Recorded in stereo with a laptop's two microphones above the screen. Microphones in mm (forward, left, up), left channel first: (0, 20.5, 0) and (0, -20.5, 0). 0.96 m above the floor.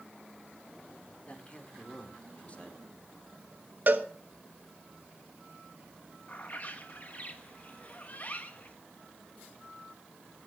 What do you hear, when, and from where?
1.3 s a man speaking: 35° left (ahead or behind), 3.5 m
3.9 s a cowbell: 45° right (ahead or behind), 1.4 m
6.3 s a bird: 40° left (ahead or behind), 1.4 m